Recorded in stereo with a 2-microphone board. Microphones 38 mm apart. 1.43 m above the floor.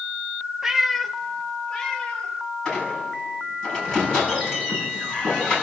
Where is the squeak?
15° left (ahead or behind), 7.5 m.